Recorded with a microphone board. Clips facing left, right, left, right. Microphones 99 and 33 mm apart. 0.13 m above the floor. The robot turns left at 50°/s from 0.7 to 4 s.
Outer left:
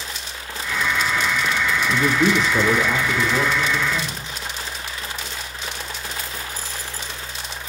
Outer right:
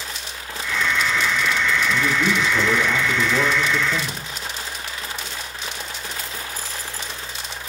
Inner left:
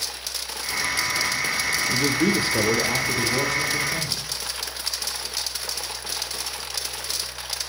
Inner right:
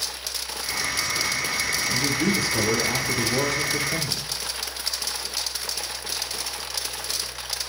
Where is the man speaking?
70° left, 5 m; by 4.4 s 35° right, 5 m.